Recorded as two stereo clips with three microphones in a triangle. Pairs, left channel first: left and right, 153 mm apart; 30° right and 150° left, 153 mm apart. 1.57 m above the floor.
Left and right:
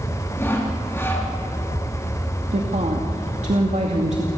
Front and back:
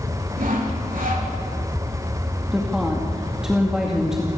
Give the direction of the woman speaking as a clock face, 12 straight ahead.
4 o'clock.